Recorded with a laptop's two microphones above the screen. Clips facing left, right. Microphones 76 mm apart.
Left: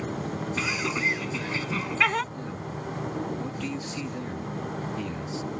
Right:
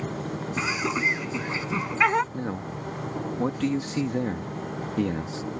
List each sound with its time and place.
0.6 s laughter: 20° right (ahead or behind)
2.3 s a man speaking: 65° right (ahead or behind)